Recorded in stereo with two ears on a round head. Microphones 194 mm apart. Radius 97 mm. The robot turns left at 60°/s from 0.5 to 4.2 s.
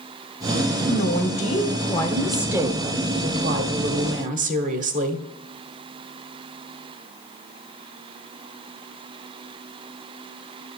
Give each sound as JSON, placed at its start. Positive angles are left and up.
{"t": 0.9, "sound": "a woman speaking", "azimuth_deg": 85, "distance_m": 1.0}